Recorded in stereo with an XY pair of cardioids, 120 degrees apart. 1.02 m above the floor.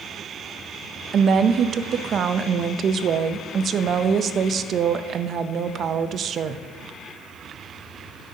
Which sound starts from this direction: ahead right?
A woman speaking, at 1.1 s.